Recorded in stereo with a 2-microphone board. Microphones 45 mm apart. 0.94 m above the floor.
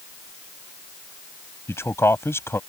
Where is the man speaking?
70° left (ahead or behind).